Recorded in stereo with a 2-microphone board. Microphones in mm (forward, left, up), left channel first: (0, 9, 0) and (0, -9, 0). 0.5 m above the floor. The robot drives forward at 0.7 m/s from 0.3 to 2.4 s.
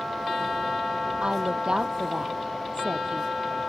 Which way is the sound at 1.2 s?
55° right (ahead or behind).